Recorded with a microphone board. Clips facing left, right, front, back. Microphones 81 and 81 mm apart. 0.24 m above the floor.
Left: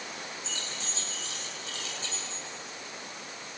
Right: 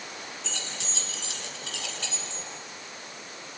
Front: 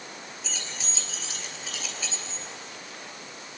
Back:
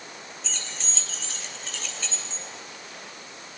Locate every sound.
0.4 s keys jangling: 85° right, 3 m